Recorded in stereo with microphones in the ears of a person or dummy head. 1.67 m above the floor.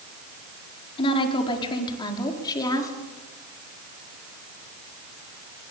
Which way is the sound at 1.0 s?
35° left (ahead or behind).